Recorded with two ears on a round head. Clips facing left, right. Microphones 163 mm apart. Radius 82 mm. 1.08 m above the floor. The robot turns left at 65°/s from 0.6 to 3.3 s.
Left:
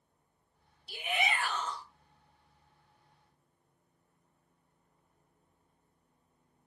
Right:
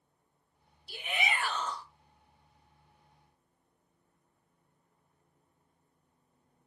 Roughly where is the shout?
Ahead.